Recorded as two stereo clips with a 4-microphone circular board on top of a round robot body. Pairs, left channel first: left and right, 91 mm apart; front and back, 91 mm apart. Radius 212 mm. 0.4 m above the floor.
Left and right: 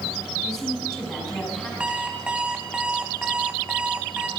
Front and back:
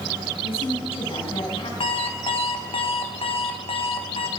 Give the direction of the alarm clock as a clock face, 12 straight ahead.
12 o'clock.